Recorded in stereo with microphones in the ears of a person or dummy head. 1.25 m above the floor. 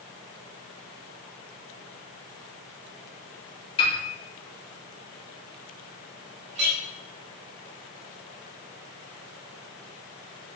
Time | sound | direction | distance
3.8 | a piano | 30° left (ahead or behind) | 2.5 m
6.5 | a clink | 40° right (ahead or behind) | 2.5 m